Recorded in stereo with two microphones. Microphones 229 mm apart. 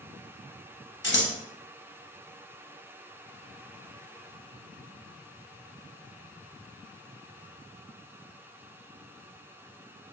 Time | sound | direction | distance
1.0 | scissors | 55° left (ahead or behind) | 0.7 m